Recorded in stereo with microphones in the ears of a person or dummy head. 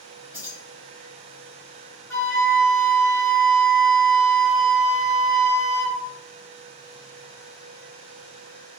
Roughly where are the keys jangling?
Centre.